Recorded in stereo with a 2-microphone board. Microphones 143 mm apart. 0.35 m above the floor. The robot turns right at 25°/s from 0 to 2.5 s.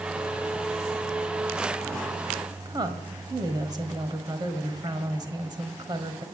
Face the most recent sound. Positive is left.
turn(degrees=-30)  # may be behind; listen again after turning